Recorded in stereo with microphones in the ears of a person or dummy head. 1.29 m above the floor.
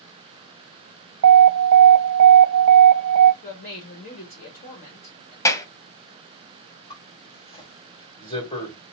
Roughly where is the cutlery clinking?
I don't hear cutlery clinking.